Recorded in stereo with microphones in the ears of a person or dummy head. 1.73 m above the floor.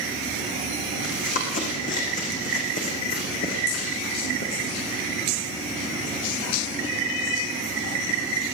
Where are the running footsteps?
40° left (ahead or behind), 7 m; by 5.1 s 50° left (ahead or behind), 8 m.